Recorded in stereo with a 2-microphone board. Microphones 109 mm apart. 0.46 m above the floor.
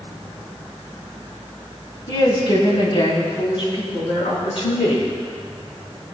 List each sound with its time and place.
2.1 s a woman speaking: 45° left (ahead or behind), 2.5 m; by 5.1 s 60° left (ahead or behind), 4.5 m